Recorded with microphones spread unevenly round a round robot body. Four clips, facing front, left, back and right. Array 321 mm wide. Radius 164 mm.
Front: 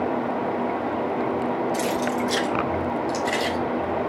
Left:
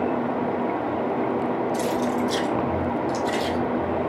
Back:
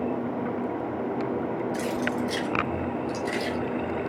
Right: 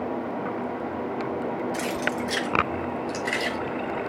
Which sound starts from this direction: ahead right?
Keys jangling, at 1.7 s.